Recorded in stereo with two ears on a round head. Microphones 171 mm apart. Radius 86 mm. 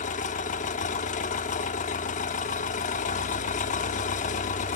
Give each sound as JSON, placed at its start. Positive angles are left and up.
{"t": 0.0, "sound": "an engine running", "side_deg": 40, "distance_m": 0.7}